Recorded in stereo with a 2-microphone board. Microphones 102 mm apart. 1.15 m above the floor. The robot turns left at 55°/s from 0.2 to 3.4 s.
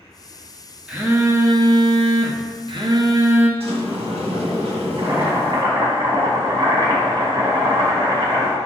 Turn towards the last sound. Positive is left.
turn(degrees=-35)  # may be behind; listen again after turning